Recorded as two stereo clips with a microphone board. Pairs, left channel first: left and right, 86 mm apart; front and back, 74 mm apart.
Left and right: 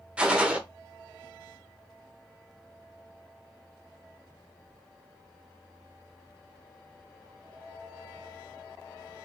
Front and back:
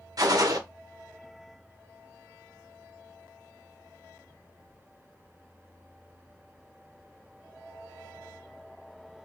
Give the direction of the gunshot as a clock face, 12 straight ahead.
5 o'clock.